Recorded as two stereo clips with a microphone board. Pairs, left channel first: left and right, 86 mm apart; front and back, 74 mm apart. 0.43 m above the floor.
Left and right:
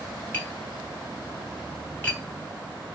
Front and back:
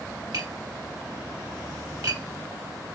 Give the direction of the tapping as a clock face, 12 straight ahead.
7 o'clock.